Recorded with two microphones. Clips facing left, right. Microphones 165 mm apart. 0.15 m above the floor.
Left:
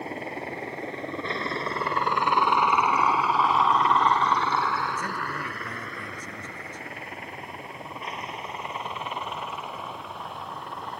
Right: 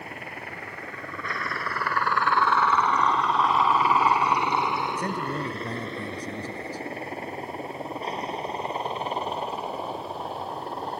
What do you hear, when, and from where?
0.0 s a helicopter: 30° left (ahead or behind); by 11.0 s 35° right (ahead or behind)
5.0 s a man speaking: 35° right (ahead or behind)